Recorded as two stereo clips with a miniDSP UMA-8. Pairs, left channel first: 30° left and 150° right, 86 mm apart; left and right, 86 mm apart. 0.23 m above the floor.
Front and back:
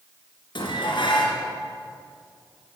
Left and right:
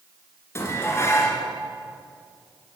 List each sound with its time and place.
0.6 s dishes clattering: 35° left, 2.5 m